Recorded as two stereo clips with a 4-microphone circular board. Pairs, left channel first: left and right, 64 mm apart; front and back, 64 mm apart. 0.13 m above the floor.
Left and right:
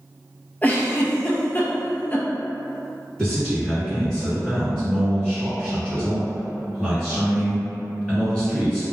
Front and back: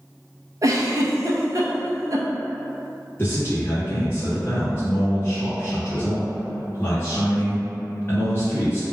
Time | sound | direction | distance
0.6 | a giggle | 150° left | 0.6 m
3.2 | a man speaking | 10° left | 1.6 m